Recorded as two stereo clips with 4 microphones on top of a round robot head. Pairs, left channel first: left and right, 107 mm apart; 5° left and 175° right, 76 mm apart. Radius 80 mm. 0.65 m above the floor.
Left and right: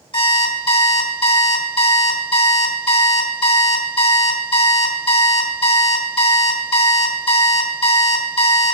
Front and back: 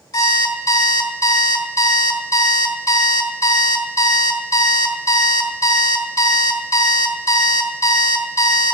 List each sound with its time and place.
0.1 s an alarm clock: 50° left, 1.9 m